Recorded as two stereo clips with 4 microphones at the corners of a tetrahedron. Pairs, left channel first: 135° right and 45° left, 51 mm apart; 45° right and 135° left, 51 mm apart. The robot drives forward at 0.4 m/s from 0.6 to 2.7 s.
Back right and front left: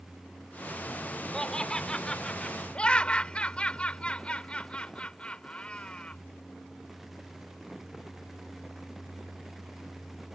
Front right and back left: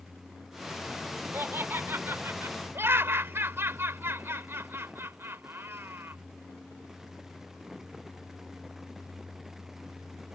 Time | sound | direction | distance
1.3 | laughter | 155° left | ?